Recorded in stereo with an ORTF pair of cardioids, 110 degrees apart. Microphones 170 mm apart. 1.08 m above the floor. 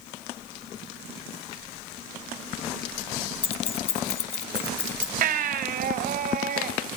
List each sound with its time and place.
3.4 s keys jangling: 35° left, 0.9 m
5.2 s a baby crying: 60° right, 2.5 m